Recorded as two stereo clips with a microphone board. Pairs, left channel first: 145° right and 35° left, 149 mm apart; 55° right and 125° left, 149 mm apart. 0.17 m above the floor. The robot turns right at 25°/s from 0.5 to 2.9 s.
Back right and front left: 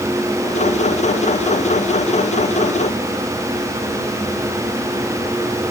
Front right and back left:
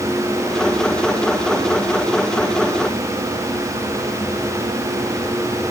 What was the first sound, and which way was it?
Only background noise.